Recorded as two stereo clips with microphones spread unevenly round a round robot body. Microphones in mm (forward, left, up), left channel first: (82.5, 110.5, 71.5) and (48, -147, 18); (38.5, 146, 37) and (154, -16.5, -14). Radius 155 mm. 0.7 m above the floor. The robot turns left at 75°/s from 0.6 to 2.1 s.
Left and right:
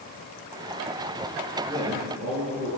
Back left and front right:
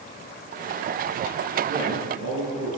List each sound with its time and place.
1.7 s a man speaking: 15° right, 6.5 m; by 2.7 s 45° right, 6.5 m